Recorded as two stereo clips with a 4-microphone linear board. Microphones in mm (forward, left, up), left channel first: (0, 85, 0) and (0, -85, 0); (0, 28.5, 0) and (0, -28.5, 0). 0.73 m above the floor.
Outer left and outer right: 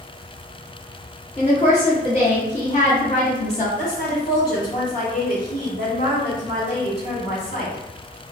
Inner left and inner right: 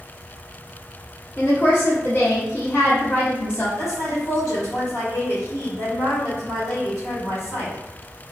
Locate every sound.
1.4 s a woman speaking: 40° left (ahead or behind), 1.1 m
3.8 s a woman speaking: 55° left (ahead or behind), 2.0 m